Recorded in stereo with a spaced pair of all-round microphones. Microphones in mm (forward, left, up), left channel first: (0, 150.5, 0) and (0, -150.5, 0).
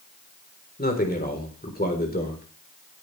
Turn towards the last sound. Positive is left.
turn(degrees=30)  # may be behind; listen again after turning